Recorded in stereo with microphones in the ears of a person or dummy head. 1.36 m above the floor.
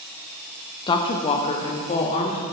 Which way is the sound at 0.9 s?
20° left (ahead or behind).